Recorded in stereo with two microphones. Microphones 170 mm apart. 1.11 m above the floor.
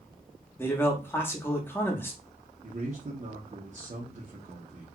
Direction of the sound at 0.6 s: 15° left (ahead or behind).